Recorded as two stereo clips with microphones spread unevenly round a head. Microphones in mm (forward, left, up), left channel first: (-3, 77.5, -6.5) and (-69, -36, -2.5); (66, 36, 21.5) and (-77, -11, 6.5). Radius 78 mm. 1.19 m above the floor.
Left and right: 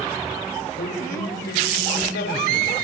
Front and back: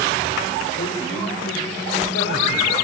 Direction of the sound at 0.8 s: 40° left.